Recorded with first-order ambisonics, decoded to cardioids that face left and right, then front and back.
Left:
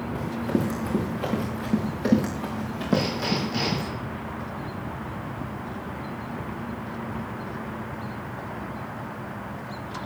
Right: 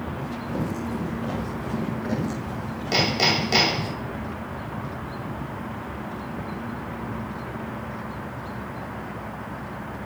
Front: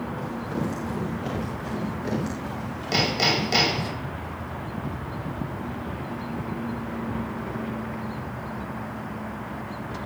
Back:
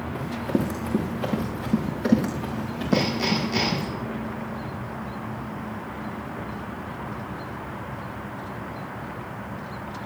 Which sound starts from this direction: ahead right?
Hammering, at 2.9 s.